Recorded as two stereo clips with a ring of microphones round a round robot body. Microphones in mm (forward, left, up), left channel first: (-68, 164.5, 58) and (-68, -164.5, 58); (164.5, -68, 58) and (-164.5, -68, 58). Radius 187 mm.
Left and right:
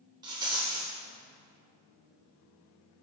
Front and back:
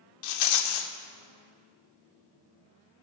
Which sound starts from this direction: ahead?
A rattle, at 0.2 s.